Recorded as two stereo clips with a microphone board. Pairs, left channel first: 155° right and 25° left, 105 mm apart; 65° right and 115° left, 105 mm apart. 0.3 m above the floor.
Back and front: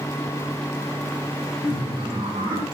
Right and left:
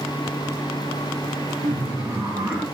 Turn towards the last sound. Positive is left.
turn(degrees=35)